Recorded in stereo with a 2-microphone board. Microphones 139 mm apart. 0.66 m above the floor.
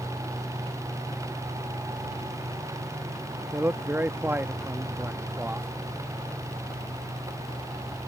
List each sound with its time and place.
3.5 s a man speaking: 15° right (ahead or behind)